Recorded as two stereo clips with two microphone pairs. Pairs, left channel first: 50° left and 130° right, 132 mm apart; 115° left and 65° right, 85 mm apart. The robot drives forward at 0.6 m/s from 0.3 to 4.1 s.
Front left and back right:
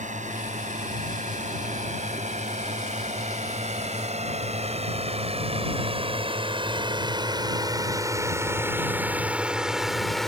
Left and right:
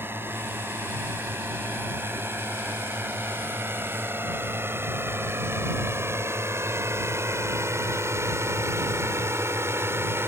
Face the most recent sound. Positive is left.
turn(degrees=-35)